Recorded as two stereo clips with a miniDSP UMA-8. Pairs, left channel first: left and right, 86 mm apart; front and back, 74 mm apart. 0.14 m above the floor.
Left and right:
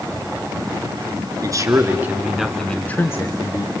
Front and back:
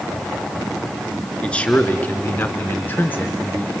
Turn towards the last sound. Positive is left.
turn(degrees=60)